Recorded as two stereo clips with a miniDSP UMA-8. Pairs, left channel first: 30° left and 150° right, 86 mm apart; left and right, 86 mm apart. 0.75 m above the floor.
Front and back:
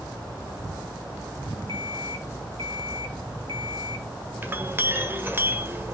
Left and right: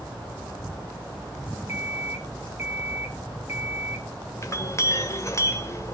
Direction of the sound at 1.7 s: 155° right.